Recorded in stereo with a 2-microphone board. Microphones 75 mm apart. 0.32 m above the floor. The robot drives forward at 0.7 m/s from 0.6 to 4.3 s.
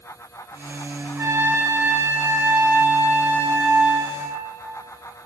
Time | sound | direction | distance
1.2 | a trumpet | 35° right (ahead or behind) | 1.7 m